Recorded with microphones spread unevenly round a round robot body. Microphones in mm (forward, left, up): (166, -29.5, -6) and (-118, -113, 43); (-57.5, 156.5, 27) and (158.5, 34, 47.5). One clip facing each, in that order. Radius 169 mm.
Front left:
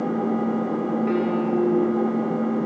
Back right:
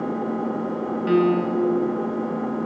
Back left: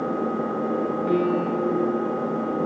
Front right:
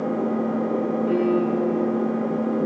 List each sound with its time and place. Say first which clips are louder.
0.0 s an engine running: front left 2 dB, front right 2 dB; 75° left, 8 m
1.1 s a piano: back right 7 dB, front right 2 dB; 130° right, 2.5 m